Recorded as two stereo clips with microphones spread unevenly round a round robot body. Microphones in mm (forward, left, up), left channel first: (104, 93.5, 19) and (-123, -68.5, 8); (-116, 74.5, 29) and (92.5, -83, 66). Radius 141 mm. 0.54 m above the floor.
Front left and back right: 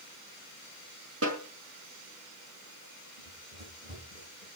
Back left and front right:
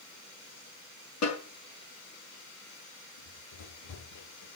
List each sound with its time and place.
1.2 s a snare drum: 170° left, 5.5 m
3.2 s running footsteps: 155° left, 9.5 m; by 4.5 s 150° left, 10 m